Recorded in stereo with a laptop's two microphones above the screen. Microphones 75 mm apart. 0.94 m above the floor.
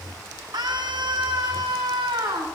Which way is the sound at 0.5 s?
75° right (ahead or behind).